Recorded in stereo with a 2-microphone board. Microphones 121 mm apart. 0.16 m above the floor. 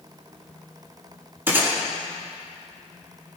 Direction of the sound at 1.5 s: 15° right (ahead or behind).